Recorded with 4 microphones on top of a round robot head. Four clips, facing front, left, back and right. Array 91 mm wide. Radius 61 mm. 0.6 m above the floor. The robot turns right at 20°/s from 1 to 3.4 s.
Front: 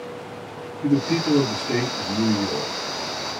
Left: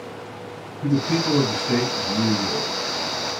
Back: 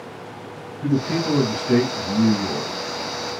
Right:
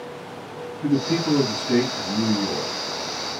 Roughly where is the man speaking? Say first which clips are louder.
Even, front 1 dB; behind.